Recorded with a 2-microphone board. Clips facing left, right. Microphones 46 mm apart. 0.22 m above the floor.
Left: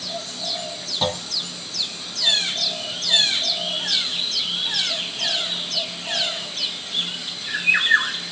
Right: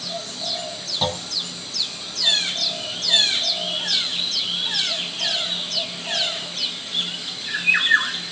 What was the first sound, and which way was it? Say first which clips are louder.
A clunk: left 1 dB; 5° left (ahead or behind).